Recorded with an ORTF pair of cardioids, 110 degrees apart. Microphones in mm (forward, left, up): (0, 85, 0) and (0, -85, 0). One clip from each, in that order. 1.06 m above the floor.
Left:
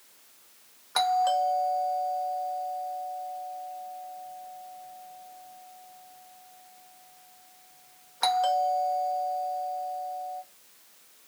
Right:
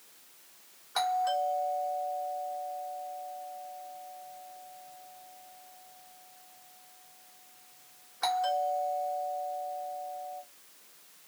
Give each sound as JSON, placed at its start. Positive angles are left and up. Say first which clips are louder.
{"t": 0.9, "sound": "a doorbell", "louder": "left 5 dB", "azimuth_deg": 40, "distance_m": 1.6}